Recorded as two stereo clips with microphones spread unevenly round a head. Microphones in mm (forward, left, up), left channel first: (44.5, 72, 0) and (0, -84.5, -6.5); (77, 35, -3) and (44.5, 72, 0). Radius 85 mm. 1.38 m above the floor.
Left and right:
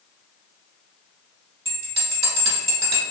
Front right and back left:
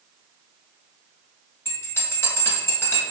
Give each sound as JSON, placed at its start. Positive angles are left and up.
{"t": 1.6, "sound": "a bell", "azimuth_deg": -65, "distance_m": 1.3}